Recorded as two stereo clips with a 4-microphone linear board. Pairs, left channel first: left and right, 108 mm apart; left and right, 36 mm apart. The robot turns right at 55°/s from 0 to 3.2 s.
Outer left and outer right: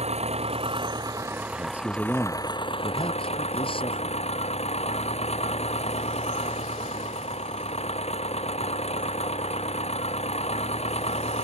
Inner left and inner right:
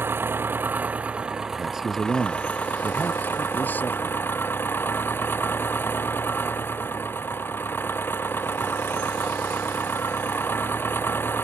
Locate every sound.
0.0 s an engine running: 95° right; by 11.4 s 80° left
1.5 s a man speaking: 30° right; by 4.2 s 65° left